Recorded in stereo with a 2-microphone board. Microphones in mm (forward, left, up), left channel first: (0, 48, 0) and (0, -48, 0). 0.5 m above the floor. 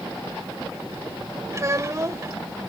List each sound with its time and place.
1.5 s a child speaking: 30° right (ahead or behind)